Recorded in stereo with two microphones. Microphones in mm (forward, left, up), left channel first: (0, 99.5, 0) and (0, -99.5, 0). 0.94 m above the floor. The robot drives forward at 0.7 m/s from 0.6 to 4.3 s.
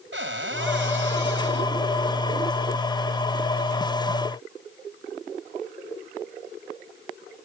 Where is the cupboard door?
80° right; by 1.8 s 70° right (ahead or behind).